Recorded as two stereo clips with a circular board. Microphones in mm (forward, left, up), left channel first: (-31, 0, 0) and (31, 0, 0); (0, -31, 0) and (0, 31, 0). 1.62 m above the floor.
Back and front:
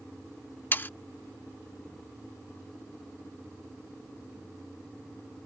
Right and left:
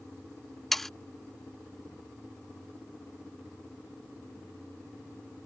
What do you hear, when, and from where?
0.7 s sawing: 170° right